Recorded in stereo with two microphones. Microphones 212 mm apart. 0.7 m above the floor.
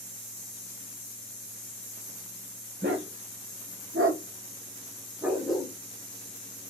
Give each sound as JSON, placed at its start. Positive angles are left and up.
{"t": 2.8, "sound": "a dog barking", "side_deg": -55, "distance_m": 1.0}